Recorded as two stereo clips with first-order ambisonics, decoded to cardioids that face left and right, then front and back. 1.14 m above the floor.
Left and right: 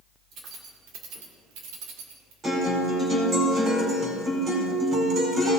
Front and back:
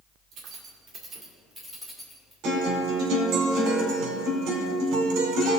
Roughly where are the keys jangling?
Behind right.